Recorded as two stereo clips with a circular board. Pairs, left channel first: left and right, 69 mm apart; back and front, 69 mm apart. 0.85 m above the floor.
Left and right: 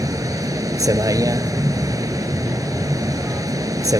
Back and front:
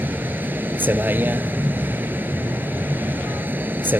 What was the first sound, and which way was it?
A vehicle, 60° right.